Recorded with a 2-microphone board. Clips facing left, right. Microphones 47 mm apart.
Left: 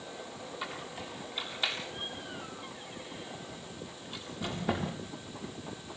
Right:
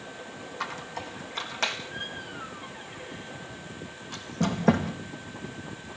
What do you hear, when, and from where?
0.6 s a squeak: 90° right, 4.5 m